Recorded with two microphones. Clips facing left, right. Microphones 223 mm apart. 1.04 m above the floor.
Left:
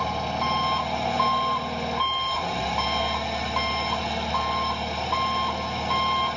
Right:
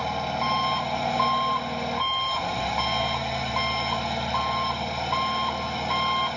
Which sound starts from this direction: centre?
An engine running, at 0.0 s.